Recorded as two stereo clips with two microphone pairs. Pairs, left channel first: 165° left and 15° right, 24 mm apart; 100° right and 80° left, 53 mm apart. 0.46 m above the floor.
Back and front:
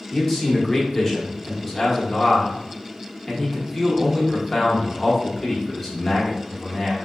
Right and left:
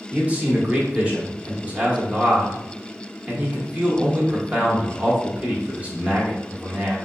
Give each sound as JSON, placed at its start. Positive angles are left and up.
{"t": 0.1, "sound": "a man speaking", "azimuth_deg": 95, "distance_m": 0.9}